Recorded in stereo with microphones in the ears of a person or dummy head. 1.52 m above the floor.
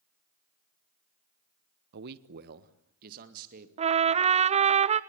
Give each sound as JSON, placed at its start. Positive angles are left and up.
{"t": 1.9, "sound": "a man speaking", "side_deg": -60, "distance_m": 0.9}
{"t": 3.8, "sound": "a trumpet", "side_deg": -25, "distance_m": 0.7}